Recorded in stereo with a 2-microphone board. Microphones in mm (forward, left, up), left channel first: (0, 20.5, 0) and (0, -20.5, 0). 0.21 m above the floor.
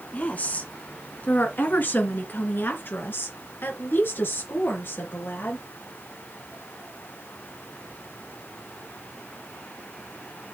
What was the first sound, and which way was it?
A woman speaking, 40° left (ahead or behind).